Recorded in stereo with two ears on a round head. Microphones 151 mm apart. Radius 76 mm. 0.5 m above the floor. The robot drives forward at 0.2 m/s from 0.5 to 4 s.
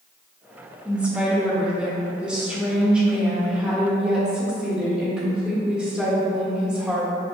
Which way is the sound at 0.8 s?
5° right (ahead or behind).